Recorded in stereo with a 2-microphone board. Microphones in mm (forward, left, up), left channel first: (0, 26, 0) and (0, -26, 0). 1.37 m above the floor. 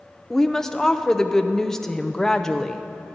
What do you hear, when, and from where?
0.3 s a woman speaking: 10° left (ahead or behind), 0.6 m